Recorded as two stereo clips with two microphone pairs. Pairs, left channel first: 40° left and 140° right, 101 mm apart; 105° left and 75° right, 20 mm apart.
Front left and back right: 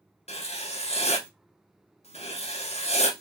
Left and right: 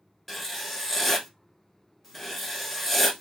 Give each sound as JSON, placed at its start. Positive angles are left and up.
{"t": 0.3, "sound": "writing", "azimuth_deg": 25, "distance_m": 0.6}